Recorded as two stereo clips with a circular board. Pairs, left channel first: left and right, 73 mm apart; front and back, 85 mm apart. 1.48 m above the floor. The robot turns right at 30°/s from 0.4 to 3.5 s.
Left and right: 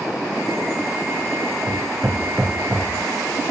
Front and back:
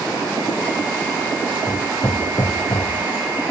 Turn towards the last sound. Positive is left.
turn(degrees=5)